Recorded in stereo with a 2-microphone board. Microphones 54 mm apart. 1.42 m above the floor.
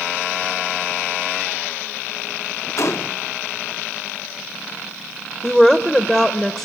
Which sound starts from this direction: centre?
A woman speaking, at 5.4 s.